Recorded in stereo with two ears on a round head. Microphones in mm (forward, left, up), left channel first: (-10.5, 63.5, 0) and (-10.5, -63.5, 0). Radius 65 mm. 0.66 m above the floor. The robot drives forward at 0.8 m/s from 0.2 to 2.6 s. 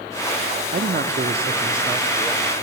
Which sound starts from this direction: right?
A man speaking, at 0.7 s.